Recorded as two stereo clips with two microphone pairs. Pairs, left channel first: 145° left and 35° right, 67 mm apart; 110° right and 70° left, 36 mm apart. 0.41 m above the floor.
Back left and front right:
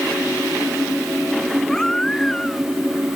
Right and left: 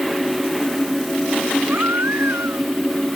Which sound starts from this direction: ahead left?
A baby crying, at 1.7 s.